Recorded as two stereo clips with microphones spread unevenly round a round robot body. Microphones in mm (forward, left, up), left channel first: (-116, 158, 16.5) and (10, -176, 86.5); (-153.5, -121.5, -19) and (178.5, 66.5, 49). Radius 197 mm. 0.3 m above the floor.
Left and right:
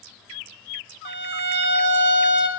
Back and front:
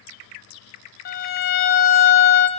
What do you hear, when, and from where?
1.1 s a violin: 105° right, 0.9 m